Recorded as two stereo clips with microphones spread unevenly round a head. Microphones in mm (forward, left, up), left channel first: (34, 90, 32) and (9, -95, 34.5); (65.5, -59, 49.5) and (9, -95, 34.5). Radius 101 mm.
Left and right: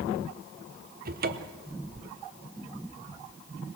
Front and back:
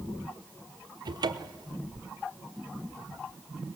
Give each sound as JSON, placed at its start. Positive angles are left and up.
{"t": 1.1, "sound": "a cupboard door", "azimuth_deg": -145, "distance_m": 1.1}